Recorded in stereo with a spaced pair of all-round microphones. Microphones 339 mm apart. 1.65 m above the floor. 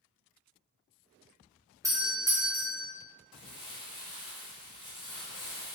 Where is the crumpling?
15° left (ahead or behind), 0.9 m.